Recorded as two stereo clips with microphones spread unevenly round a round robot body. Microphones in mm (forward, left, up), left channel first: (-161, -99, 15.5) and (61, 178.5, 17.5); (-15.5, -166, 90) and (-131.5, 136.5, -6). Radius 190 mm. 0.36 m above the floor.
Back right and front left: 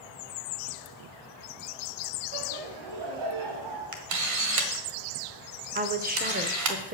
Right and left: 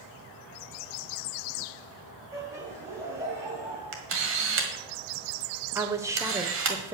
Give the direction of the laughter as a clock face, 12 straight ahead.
11 o'clock.